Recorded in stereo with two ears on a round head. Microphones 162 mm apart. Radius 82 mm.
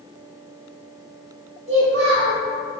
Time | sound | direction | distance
1.7 | a child speaking | 60° right (ahead or behind) | 1.5 m